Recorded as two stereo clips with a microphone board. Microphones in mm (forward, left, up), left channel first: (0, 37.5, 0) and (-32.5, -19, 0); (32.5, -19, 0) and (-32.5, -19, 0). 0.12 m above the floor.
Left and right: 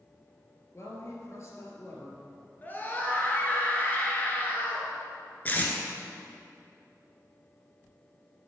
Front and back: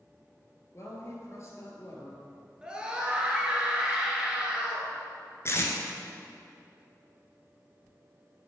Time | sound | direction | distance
0.7 | a woman speaking | 30° left | 1.9 m
2.6 | a scream | 110° left | 1.7 m
5.5 | tape being pulled | 15° left | 1.0 m